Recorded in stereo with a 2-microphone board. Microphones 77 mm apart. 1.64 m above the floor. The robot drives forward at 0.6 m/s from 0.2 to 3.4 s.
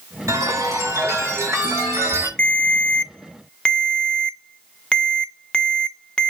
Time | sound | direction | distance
0.3 | a chime | 40° right (ahead or behind) | 5.5 m
2.4 | a ringtone | 15° left (ahead or behind) | 0.5 m